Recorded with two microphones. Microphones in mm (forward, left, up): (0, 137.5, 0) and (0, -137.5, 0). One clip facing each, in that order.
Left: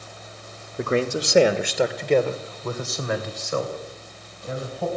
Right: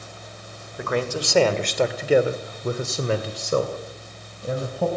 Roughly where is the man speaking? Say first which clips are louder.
Left 3 dB; left.